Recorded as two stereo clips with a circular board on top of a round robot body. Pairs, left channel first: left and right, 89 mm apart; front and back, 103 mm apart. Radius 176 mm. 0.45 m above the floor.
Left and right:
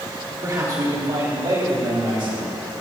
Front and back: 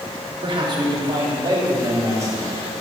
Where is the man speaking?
145° right, 2.5 m; by 2.6 s 120° right, 3 m.